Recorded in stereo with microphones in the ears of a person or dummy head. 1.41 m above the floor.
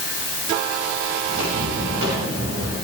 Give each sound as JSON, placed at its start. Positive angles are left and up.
{"t": 1.2, "sound": "footsteps", "side_deg": -80, "distance_m": 10.0}